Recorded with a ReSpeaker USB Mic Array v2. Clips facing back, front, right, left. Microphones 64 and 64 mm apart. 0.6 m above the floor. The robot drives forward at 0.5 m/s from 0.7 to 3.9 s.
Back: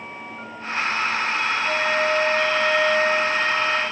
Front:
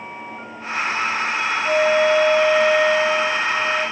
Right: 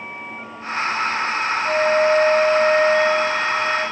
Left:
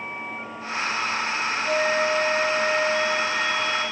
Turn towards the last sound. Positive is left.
turn(degrees=-90)